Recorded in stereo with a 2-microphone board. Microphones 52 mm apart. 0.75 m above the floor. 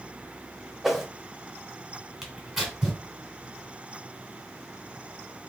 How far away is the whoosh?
About 0.7 m.